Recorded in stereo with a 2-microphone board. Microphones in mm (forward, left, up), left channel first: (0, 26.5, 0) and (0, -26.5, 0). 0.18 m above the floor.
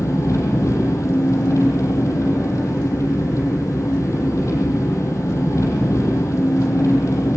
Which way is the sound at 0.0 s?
70° left (ahead or behind).